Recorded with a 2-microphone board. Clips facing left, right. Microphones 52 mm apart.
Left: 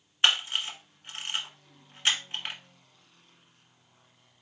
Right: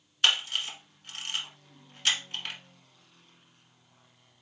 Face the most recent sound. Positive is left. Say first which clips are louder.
# left 1 dB
turn(degrees=25)  # may be behind; listen again after turning